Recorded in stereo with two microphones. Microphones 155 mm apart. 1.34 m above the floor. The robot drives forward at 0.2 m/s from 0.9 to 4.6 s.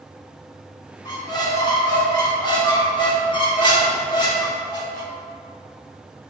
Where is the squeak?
25° left (ahead or behind), 1.1 m; by 5.1 s 30° left (ahead or behind), 1.0 m.